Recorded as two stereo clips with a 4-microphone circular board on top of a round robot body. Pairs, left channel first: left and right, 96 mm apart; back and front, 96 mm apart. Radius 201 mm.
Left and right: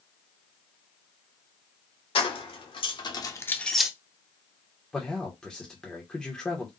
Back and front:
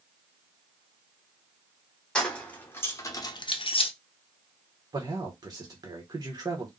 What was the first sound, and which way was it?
Keys jangling, 100° left.